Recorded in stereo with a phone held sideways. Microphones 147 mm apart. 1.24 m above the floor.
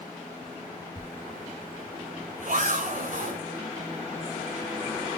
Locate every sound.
1.0 s a zipper: 70° right (ahead or behind), 2.5 m